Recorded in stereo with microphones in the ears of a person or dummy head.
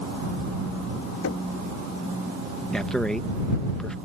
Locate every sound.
1.2 s knocking: 70° left (ahead or behind)
2.7 s a man speaking: 5° left (ahead or behind)